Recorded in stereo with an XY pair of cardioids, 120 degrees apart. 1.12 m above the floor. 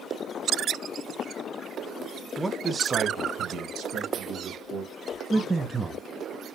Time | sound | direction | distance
2.4 | a man speaking | 5° right | 0.6 m
5.3 | a man speaking | 15° right | 0.6 m